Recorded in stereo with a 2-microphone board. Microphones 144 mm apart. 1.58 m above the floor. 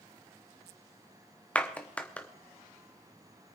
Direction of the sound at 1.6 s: 10° left (ahead or behind).